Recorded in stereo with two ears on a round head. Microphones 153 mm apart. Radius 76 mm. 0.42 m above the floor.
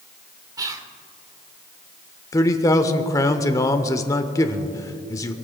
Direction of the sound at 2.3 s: 20° left (ahead or behind).